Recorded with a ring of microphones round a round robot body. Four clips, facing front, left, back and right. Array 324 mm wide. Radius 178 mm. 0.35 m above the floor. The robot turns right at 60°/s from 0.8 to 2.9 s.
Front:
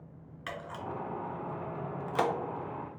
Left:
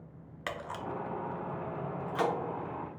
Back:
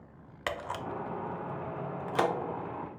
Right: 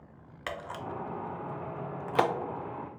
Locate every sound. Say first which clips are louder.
0.5 s a camera shutter: even, back 4 dB; straight behind, 0.6 m; by 2.3 s 90° right, 0.6 m